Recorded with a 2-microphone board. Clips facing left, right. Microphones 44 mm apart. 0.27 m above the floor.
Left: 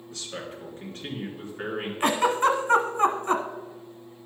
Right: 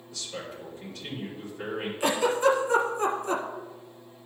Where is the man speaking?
50° left (ahead or behind), 3 m.